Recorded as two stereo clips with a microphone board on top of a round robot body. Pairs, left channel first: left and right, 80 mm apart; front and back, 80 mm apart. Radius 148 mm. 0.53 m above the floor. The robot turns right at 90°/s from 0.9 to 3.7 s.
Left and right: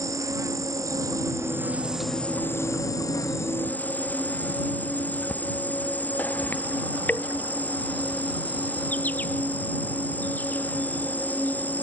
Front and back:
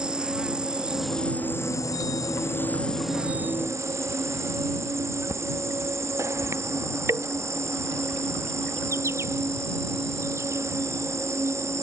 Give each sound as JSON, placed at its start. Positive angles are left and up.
{"t": 0.0, "sound": "an insect", "azimuth_deg": -105}